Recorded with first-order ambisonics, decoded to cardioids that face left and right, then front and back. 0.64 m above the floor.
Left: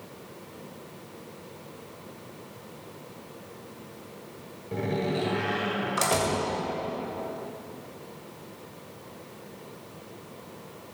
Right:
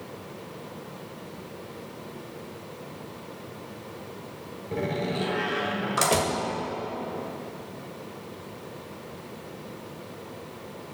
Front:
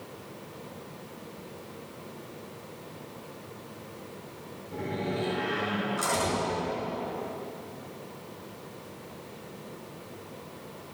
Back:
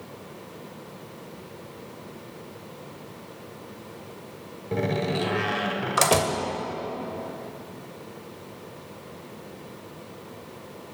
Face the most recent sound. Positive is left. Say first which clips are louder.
# even, back 6 dB
turn(degrees=-170)